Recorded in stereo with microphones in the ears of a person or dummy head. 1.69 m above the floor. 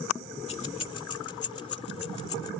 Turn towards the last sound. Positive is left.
turn(degrees=25)  # may be behind; listen again after turning